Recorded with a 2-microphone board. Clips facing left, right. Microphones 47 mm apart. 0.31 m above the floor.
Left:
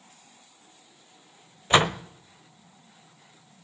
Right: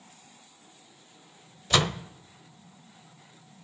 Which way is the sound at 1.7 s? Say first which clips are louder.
Left 5 dB; 30° left (ahead or behind).